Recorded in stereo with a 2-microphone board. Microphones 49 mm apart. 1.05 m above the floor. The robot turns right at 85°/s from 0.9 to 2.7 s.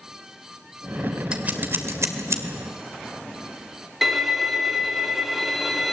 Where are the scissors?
20° right (ahead or behind), 2 m; by 2.4 s 65° right (ahead or behind), 2 m.